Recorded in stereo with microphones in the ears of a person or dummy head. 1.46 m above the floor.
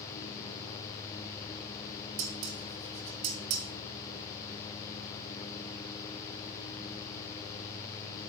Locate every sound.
2.2 s dishes clattering: 60° right (ahead or behind), 1.3 m